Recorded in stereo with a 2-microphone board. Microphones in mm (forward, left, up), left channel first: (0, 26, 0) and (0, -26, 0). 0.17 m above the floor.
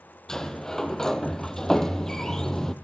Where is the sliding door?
10° left (ahead or behind), 1.0 m.